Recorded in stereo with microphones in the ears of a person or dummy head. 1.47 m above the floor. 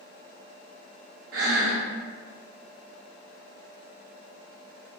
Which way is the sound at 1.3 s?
65° right (ahead or behind).